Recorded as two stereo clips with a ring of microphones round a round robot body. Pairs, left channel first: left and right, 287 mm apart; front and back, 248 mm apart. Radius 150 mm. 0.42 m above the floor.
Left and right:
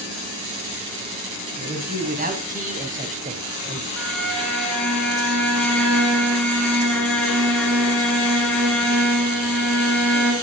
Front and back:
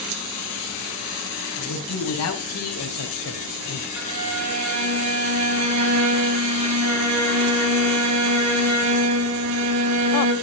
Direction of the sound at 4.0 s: 175° left.